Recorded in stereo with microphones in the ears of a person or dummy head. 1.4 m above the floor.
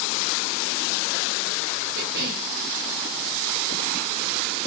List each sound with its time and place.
1.9 s a cough: 50° right (ahead or behind), 0.8 m